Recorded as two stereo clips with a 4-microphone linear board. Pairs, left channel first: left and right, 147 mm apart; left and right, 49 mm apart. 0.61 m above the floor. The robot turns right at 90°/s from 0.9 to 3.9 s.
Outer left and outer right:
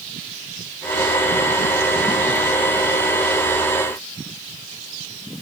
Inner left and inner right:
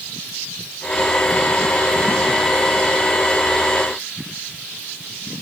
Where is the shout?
No shout in this recording.